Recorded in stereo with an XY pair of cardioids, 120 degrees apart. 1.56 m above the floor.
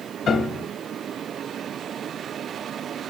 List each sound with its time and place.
0.3 s a piano: 45° left, 1.8 m